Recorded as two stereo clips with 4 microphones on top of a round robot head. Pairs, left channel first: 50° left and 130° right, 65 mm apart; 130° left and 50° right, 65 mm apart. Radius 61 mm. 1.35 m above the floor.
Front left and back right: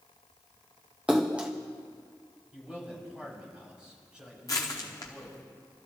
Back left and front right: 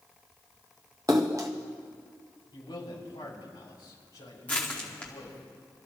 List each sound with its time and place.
1.1 s a splash: 70° right, 0.6 m
2.5 s a man speaking: 150° left, 5.5 m
4.5 s crushing: 70° left, 0.9 m